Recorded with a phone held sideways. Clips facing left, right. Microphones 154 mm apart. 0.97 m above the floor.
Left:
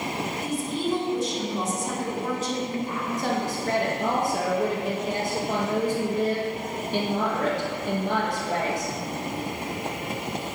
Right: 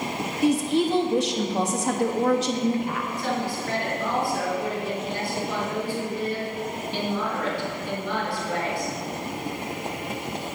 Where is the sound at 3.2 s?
45° left (ahead or behind), 1.4 m.